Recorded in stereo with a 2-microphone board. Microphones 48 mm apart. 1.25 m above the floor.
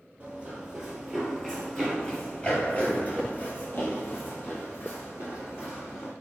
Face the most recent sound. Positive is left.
turn(degrees=55)  # may be behind; listen again after turning